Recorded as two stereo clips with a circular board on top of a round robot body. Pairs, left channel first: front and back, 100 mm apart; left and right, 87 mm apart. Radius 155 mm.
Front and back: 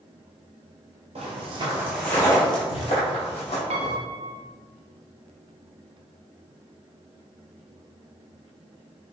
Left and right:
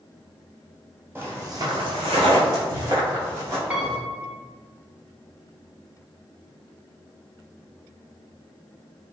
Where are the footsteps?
155° right, 0.8 m; by 4.0 s 25° right, 1.8 m.